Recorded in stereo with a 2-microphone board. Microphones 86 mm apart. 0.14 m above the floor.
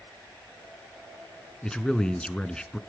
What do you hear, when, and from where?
1.6 s a man speaking: 10° left (ahead or behind), 1.4 m